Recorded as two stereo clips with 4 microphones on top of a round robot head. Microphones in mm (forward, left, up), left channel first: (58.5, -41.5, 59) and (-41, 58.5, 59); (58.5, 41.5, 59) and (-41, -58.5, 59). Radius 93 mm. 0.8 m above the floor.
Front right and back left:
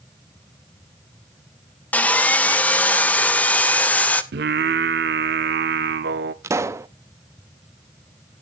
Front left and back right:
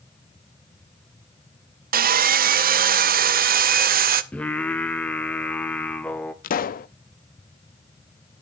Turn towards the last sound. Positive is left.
turn(degrees=65)